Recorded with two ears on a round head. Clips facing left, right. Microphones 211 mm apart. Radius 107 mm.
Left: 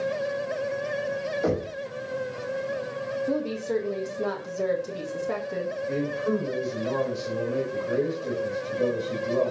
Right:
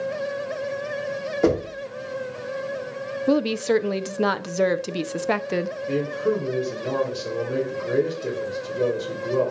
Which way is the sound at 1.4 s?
75° right (ahead or behind).